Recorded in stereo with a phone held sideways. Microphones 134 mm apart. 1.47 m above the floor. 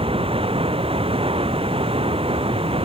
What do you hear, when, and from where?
0.0 s running water: 45° right (ahead or behind)